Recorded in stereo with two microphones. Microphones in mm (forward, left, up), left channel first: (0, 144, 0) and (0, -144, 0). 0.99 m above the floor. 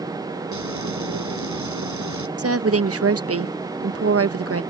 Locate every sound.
0.5 s frying: 75° right (ahead or behind)
2.4 s a woman speaking: 55° right (ahead or behind)